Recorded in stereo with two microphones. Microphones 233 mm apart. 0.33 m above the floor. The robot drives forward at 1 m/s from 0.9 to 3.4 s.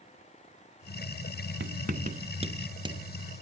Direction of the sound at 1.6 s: 55° right (ahead or behind).